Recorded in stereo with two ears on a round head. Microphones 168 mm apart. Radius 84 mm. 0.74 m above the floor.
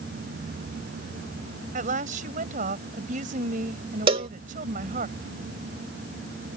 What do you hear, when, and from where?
1.7 s a woman speaking: 45° right (ahead or behind)
4.1 s a cowbell: 30° right (ahead or behind)